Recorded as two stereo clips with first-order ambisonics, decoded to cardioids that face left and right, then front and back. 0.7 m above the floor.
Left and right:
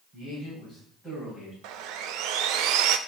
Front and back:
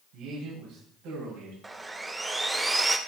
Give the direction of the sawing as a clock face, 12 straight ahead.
3 o'clock.